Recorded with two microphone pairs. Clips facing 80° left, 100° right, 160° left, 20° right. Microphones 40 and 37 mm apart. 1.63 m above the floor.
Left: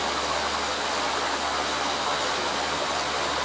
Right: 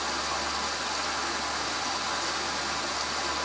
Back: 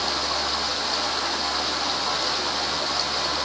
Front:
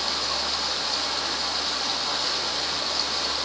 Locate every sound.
0.0 s running water: 75° left, 7.5 m